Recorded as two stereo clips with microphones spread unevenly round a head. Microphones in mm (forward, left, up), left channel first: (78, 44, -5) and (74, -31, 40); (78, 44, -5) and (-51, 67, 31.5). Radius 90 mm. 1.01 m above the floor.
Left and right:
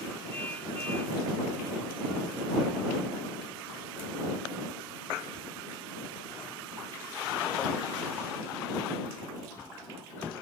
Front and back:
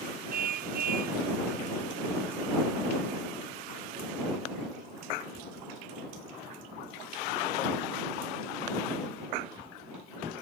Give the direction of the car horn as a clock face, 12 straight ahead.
6 o'clock.